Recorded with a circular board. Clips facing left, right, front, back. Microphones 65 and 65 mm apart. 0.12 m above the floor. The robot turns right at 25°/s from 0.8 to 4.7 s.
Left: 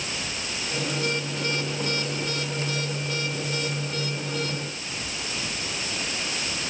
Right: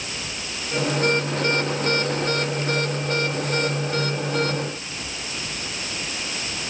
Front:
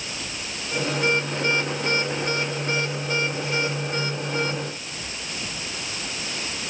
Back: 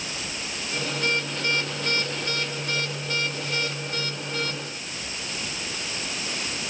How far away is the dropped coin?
I don't hear a dropped coin.